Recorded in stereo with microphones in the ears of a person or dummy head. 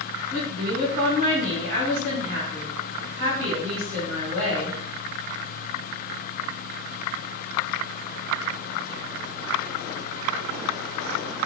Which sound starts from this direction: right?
A woman speaking, at 0.3 s.